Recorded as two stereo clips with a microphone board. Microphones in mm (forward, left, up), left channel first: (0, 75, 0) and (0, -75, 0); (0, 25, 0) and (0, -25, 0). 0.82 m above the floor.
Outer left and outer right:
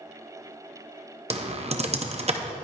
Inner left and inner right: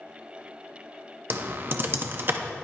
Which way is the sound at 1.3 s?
45° right (ahead or behind).